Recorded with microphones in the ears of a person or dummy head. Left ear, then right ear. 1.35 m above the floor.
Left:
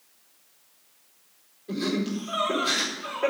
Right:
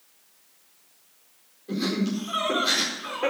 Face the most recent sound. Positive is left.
turn(degrees=0)  # may be behind; listen again after turning